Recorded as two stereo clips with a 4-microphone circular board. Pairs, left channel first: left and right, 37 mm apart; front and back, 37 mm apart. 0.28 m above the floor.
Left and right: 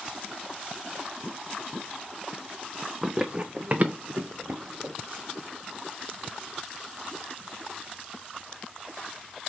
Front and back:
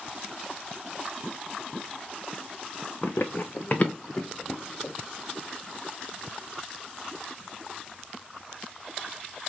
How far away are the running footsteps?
About 0.6 m.